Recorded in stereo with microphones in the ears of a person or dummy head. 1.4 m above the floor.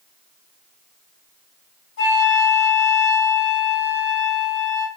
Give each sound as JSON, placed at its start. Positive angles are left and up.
{"t": 2.0, "sound": "a flute", "side_deg": 40, "distance_m": 1.4}